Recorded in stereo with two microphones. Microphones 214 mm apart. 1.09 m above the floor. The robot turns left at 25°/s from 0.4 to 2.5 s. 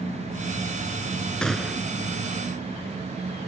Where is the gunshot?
5° left (ahead or behind); by 1.9 s 10° right (ahead or behind).